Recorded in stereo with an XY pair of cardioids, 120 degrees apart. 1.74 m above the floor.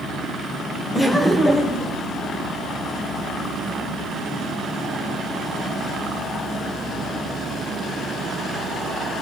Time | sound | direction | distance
0.9 | laughter | 10° left | 1.8 m